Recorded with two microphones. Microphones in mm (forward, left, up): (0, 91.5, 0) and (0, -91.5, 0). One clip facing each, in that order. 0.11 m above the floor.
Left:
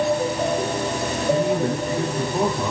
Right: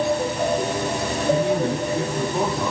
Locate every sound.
1.3 s a man speaking: 10° left (ahead or behind), 4 m